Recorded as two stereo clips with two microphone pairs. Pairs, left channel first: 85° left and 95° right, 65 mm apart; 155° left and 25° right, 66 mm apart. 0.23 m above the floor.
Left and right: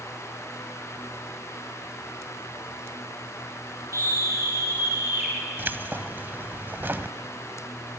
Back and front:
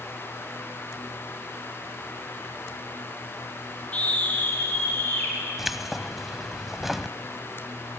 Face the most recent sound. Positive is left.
turn(degrees=-110)